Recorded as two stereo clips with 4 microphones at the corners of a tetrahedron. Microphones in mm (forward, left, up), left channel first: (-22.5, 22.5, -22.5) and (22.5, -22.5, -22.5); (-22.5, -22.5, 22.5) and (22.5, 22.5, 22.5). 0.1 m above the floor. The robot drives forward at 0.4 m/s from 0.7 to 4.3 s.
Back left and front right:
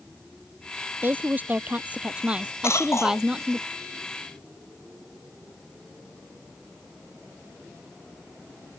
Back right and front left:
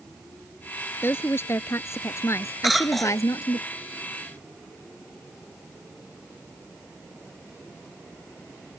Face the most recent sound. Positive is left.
turn(degrees=145)